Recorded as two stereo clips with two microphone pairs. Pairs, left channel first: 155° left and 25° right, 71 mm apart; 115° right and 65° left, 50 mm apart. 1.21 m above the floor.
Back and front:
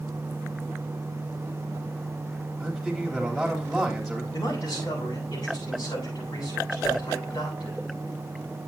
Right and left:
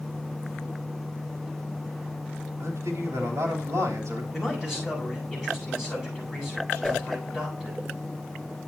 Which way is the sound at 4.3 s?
150° left.